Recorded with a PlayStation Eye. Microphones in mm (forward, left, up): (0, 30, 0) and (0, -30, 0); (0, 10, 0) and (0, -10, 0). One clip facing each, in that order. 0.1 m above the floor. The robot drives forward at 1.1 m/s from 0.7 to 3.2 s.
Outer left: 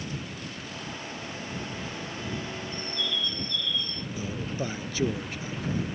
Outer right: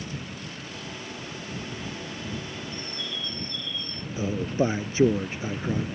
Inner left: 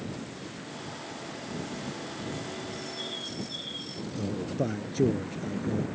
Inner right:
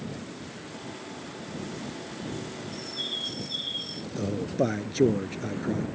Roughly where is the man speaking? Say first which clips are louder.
Outer right 8 dB, inner right 4 dB; right.